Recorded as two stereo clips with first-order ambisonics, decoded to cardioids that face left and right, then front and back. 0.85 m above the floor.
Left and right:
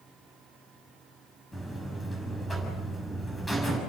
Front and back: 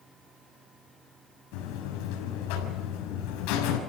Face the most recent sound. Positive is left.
turn(degrees=5)